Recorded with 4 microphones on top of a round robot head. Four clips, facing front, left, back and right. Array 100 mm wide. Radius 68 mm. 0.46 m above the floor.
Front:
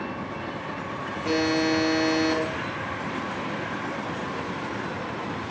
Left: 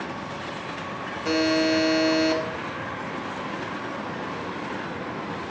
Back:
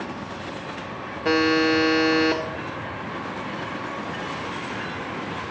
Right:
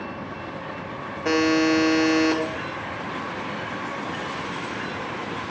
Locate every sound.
1.2 s a buzzer: 150° right, 1.3 m